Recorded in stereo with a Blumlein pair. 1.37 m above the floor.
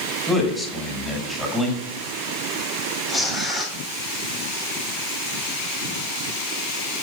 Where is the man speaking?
Straight ahead, 5.5 m.